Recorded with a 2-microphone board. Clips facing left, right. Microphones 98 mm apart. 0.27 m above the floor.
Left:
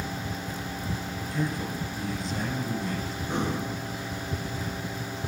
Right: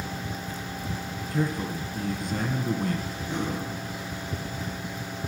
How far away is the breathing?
About 3.5 m.